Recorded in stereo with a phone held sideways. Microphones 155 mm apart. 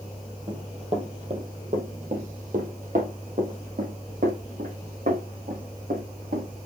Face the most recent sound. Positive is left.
turn(degrees=-65)  # may be behind; listen again after turning